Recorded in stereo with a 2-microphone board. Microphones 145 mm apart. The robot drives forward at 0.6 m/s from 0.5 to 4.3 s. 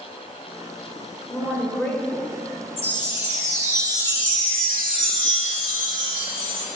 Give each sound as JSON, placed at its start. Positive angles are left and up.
{"t": 1.3, "sound": "a woman speaking", "side_deg": 15, "distance_m": 1.1}
{"t": 2.8, "sound": "a chime", "side_deg": -20, "distance_m": 1.6}